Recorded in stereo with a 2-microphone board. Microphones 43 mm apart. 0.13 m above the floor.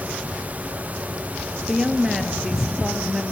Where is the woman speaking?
10° right (ahead or behind), 2 m.